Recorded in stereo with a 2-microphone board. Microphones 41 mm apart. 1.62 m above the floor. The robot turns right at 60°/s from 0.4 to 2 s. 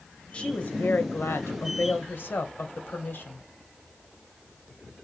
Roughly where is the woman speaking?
Ahead left.